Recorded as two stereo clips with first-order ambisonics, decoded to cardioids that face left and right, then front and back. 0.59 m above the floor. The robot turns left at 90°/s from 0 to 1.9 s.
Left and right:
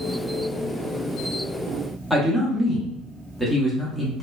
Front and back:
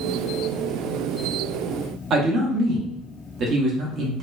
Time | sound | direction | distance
2.1 | a man speaking | 175° left | 0.9 m